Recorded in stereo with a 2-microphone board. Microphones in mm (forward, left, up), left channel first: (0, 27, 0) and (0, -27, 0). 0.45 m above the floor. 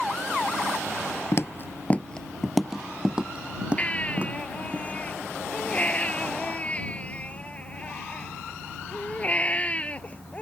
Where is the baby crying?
25° left (ahead or behind).